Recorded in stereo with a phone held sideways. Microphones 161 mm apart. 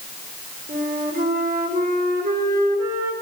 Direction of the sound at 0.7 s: 65° right (ahead or behind).